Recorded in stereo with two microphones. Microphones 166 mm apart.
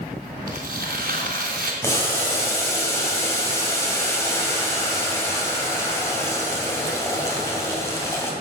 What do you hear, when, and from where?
0.5 s tearing paper: 60° right (ahead or behind), 3 m
1.8 s boiling: 15° left (ahead or behind), 2.5 m